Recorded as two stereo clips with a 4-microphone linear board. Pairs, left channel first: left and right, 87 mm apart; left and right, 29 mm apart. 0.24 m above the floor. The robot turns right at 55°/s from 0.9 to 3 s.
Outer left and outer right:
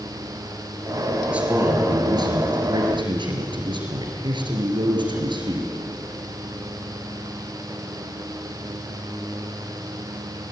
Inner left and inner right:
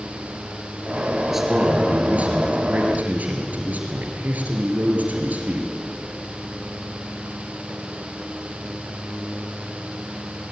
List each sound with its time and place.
1.3 s a man speaking: 170° right, 4.5 m; by 5.7 s 75° right, 4.5 m